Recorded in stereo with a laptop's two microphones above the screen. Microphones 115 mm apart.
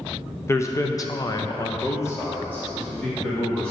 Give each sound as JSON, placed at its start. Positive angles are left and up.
{"t": 0.5, "sound": "a man speaking", "side_deg": 25, "distance_m": 0.7}